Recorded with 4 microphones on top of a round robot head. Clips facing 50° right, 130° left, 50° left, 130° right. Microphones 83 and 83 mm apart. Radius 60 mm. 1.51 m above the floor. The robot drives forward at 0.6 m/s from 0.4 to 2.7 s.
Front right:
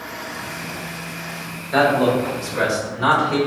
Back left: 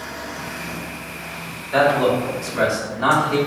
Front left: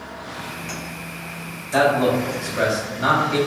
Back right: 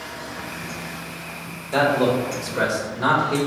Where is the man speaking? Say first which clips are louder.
Even, front left 1 dB; 125° right, 1.3 m; by 3.4 s 145° right, 1.7 m.